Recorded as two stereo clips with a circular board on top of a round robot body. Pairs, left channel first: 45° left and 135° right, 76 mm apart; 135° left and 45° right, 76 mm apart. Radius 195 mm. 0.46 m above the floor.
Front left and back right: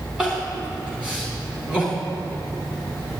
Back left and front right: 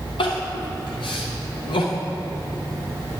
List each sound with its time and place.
0.2 s crying: 145° left, 0.8 m